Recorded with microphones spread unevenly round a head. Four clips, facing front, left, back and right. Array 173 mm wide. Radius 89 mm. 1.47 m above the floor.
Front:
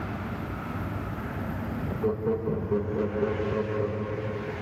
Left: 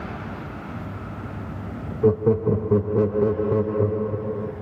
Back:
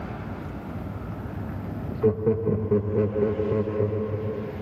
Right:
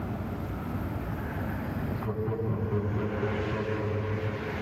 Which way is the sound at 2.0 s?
105° left.